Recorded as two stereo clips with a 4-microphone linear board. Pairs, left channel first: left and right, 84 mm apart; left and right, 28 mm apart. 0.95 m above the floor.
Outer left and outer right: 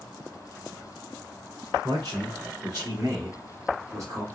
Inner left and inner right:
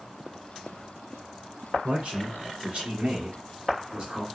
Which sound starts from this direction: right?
A man speaking, at 1.8 s.